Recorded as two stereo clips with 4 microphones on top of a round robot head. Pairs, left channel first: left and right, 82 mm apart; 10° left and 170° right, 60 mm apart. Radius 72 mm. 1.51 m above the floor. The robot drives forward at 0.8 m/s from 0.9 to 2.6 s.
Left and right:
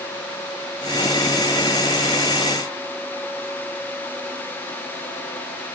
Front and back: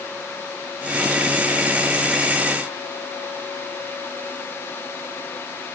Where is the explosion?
I don't hear an explosion.